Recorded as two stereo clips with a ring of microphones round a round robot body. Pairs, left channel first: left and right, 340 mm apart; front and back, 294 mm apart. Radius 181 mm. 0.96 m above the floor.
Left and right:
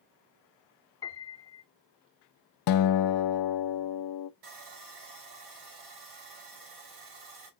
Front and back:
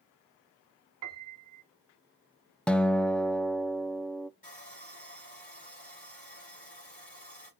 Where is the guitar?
85° left, 0.5 m.